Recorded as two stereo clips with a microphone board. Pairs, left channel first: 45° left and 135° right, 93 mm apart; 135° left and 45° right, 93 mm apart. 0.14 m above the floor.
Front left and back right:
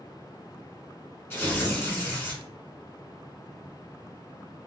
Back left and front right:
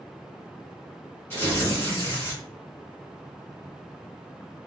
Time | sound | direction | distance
1.3 | tearing paper | 90° left | 1.8 m